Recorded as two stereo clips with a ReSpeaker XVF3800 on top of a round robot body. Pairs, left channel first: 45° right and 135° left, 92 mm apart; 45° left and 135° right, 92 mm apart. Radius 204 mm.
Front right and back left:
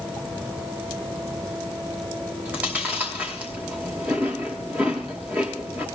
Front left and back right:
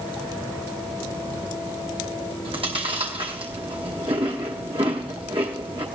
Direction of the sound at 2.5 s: 150° right.